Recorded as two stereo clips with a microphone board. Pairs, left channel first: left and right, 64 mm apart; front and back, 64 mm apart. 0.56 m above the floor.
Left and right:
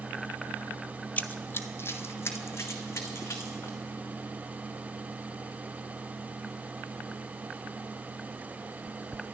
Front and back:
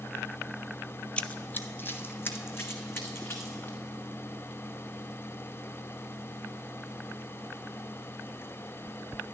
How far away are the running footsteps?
About 0.6 m.